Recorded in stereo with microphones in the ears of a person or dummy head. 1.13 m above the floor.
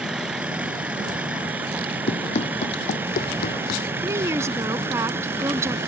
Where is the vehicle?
Centre (ahead or behind); by 5.9 s 10° right (ahead or behind).